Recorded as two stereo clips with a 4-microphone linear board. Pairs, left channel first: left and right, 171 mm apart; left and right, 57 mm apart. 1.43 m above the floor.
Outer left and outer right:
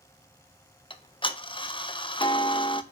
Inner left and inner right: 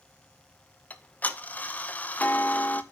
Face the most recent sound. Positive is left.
turn(degrees=30)  # may be behind; listen again after turning